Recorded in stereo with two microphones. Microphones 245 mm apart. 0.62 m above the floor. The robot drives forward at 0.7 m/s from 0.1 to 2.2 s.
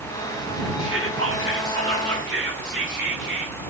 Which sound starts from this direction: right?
Whispering, at 0.8 s.